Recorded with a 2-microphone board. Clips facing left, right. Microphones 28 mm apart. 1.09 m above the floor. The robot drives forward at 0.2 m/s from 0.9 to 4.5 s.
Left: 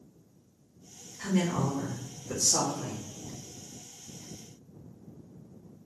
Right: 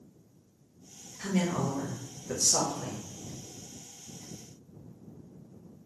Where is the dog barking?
No dog barking in this recording.